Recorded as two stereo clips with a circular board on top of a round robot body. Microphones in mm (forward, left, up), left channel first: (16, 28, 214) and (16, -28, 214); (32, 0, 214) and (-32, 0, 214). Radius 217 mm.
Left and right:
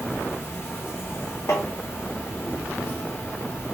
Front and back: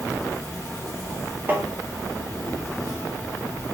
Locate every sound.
0.0 s an insect: 45° left, 1.2 m
1.5 s tapping: 120° left, 0.8 m